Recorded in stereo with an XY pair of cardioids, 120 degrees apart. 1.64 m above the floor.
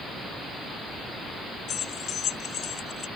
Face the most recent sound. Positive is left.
turn(degrees=45)